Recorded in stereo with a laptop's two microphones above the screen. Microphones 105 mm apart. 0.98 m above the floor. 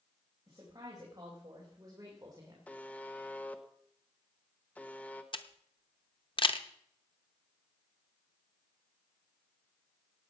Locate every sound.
0.5 s a woman speaking: 40° right (ahead or behind), 4.5 m; by 2.6 s 35° right (ahead or behind), 3 m
2.7 s a buzzer: 15° left (ahead or behind), 1.2 m
5.3 s a camera shutter: 55° left (ahead or behind), 0.8 m